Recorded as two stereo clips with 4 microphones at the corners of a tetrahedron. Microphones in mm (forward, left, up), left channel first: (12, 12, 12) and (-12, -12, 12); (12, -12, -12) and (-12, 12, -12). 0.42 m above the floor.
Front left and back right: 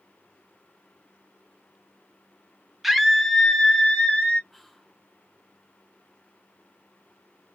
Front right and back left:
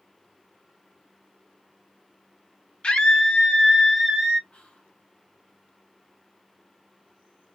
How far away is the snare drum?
No snare drum in this recording.